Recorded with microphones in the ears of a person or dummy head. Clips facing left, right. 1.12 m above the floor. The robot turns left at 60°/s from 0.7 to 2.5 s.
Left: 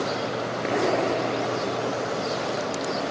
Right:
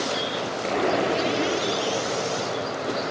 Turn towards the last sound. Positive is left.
turn(degrees=-95)